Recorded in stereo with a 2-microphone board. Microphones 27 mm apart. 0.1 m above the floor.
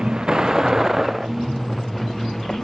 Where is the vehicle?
35° right (ahead or behind); by 2.6 s 10° left (ahead or behind).